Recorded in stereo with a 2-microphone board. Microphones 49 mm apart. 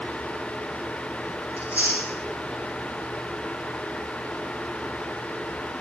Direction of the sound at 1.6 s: 30° right (ahead or behind).